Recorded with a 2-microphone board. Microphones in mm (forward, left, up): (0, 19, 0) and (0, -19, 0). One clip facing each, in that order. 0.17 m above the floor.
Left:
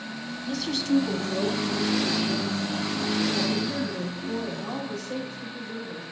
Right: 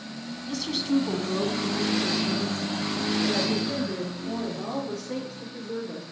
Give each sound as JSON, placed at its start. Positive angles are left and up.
{"t": 0.5, "sound": "a woman speaking", "side_deg": 15, "distance_m": 1.1}